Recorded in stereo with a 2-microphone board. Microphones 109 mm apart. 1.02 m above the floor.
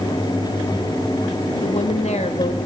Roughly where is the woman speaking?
Left.